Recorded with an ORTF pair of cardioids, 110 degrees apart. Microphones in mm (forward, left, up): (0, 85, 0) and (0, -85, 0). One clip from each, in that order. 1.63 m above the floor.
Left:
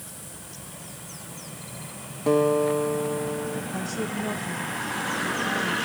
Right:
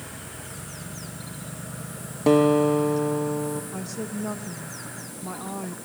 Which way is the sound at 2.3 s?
35° right.